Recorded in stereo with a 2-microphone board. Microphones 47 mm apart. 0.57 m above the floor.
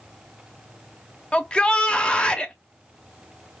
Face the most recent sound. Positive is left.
turn(degrees=25)  # may be behind; listen again after turning